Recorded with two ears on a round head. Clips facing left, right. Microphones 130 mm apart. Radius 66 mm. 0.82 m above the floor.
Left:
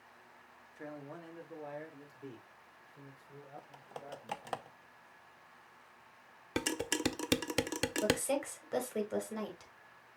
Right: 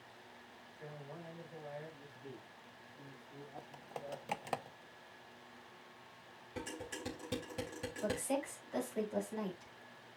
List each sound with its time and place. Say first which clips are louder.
0.8 s a man speaking: left 4 dB; 65° left (ahead or behind), 1.8 m; by 4.6 s 80° left, 5 m
3.6 s typing on a keyboard: right 3 dB; 10° right (ahead or behind), 0.6 m
6.6 s dishes clattering: left 9 dB; 75° left (ahead or behind), 0.7 m
8.0 s a woman speaking: left 3 dB; 70° left (ahead or behind), 4 m